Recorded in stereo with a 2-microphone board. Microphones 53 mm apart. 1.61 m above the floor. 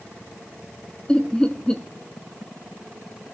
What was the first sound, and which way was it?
Laughter, 15° left (ahead or behind).